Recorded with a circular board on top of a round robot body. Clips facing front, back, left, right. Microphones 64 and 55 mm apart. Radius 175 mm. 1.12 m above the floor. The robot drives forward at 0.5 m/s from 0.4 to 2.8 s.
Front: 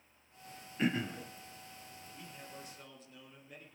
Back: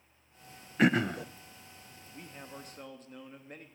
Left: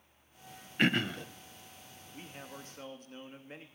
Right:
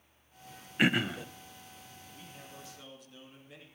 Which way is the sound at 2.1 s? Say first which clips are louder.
Back 5 dB, left 5 dB; 135° left.